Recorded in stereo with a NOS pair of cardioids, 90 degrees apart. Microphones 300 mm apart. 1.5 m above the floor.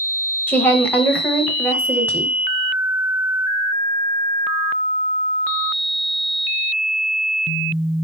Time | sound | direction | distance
0.5 | a woman speaking | 5° left | 0.6 m